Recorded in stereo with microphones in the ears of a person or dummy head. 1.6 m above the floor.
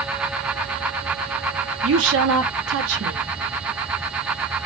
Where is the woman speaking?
75° right (ahead or behind), 0.7 m.